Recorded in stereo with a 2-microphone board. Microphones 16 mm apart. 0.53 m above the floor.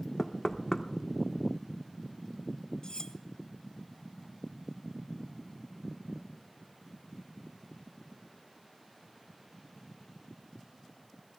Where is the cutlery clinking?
40° left (ahead or behind), 0.6 m.